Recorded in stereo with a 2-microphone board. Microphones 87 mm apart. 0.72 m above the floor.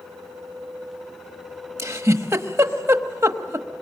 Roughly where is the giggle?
Right.